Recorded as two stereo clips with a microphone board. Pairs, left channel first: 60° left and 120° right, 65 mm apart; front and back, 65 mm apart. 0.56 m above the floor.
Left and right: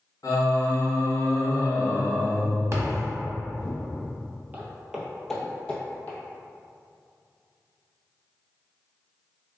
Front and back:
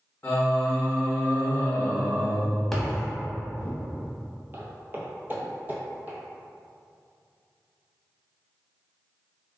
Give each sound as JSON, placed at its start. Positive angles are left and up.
{"t": 0.2, "sound": "singing", "azimuth_deg": 55, "distance_m": 0.8}
{"t": 2.7, "sound": "a thud", "azimuth_deg": -85, "distance_m": 0.7}
{"t": 4.5, "sound": "footsteps", "azimuth_deg": -160, "distance_m": 0.6}